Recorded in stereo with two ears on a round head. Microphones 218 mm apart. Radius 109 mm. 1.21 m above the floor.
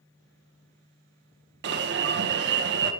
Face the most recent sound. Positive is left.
turn(degrees=-45)  # may be behind; listen again after turning